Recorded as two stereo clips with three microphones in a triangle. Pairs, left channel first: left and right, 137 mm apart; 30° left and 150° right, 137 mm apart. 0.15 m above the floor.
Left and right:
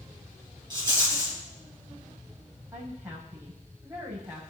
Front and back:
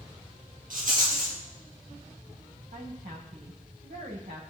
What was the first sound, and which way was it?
A rattle, 145° right.